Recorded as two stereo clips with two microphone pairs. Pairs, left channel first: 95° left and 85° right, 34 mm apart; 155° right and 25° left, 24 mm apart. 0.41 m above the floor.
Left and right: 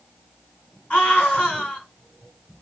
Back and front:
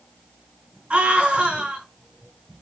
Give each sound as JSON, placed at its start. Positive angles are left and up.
{"t": 0.9, "sound": "a scream", "azimuth_deg": 55, "distance_m": 3.0}